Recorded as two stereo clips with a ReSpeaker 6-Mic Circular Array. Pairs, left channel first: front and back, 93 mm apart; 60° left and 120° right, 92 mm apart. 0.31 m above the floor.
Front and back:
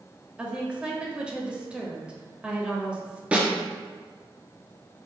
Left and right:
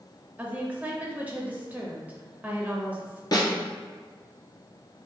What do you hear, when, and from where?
0.4 s a woman speaking: 135° right, 0.9 m
3.3 s a snare drum: 105° left, 1.3 m